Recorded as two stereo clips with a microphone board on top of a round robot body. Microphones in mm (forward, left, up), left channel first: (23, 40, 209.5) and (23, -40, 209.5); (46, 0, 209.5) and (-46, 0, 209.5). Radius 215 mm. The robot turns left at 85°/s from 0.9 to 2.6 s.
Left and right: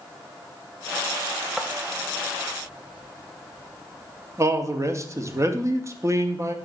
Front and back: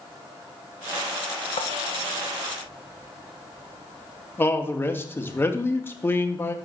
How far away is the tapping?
About 0.7 m.